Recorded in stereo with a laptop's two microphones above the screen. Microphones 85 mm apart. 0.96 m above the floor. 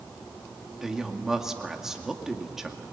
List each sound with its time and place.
0.8 s a woman speaking: 5° right (ahead or behind), 2 m